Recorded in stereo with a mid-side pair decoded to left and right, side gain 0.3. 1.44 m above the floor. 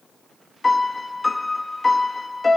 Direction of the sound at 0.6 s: 40° left.